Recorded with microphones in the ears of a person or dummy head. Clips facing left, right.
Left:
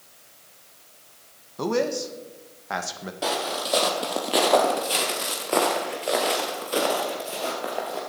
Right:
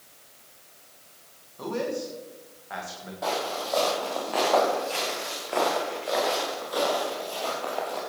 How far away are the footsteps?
About 4 m.